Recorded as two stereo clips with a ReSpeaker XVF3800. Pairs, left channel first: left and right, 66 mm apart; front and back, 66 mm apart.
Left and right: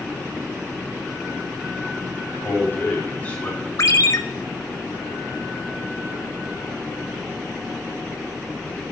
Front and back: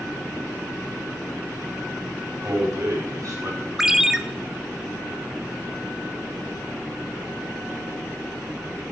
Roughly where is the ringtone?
Left.